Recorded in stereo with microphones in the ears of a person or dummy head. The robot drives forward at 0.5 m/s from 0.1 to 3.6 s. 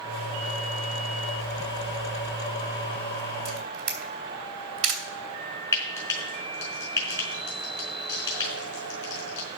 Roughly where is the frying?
Left.